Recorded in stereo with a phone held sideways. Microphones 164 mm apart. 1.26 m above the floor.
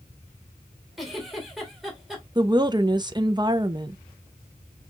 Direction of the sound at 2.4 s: 25° right (ahead or behind).